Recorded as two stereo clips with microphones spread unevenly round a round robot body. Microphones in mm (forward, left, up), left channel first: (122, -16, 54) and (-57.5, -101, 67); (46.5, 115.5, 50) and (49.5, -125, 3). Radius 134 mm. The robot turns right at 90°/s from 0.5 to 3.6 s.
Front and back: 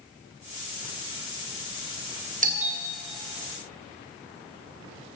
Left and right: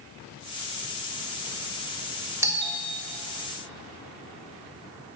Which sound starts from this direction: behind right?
A doorbell, at 2.4 s.